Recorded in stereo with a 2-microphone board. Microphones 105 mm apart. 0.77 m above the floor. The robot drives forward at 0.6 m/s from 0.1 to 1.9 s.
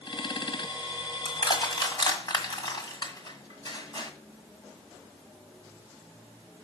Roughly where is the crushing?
Left.